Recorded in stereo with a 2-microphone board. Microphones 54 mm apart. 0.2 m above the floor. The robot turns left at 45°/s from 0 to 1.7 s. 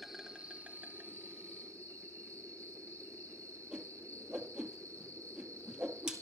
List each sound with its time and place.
0.0 s an insect: straight ahead, 1.4 m; by 6.2 s 75° right, 1.4 m
3.7 s a whoosh: 15° right (ahead or behind), 2 m